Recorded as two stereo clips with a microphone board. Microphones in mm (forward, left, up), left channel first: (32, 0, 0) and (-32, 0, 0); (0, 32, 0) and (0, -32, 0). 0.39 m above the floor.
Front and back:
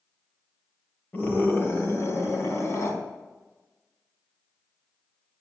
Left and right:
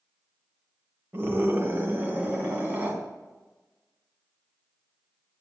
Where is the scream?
55° right, 1.9 m; by 3.0 s 30° right, 3.5 m.